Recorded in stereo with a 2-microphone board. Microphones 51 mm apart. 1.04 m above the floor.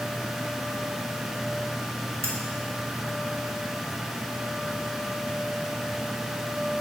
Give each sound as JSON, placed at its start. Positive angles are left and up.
{"t": 2.2, "sound": "cutlery clinking", "side_deg": -75, "distance_m": 1.4}